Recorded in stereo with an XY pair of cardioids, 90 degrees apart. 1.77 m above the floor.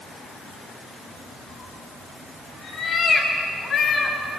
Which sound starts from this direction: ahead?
A cat meowing, at 1.5 s.